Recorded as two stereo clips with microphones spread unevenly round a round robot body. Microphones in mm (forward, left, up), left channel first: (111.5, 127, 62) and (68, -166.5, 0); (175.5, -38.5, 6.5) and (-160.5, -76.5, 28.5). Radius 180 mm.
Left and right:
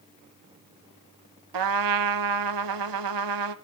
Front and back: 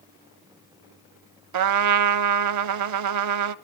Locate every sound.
1.5 s a trumpet: 140° right, 0.6 m